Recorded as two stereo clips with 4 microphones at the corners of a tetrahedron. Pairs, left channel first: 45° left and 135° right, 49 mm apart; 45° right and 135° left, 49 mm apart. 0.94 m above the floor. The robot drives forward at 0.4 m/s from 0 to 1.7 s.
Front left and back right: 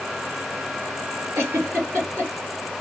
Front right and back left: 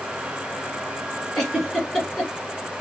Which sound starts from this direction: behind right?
A giggle, at 1.4 s.